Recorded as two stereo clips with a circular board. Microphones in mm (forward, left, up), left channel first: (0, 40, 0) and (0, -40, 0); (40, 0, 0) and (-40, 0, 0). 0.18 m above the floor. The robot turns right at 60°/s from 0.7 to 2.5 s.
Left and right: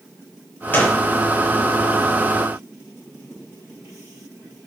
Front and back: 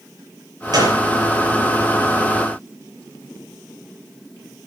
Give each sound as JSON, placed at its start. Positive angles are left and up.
{"t": 0.7, "sound": "a gunshot", "azimuth_deg": 155, "distance_m": 5.0}